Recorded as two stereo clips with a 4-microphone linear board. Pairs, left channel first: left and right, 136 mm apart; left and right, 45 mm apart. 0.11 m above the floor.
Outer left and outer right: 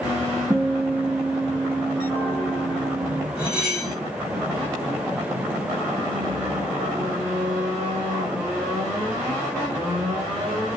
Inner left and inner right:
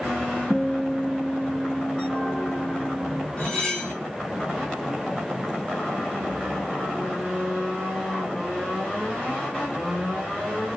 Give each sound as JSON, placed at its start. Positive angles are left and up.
{"t": 0.5, "sound": "a guitar", "side_deg": 0, "distance_m": 1.1}
{"t": 3.4, "sound": "cutlery clinking", "side_deg": 30, "distance_m": 2.5}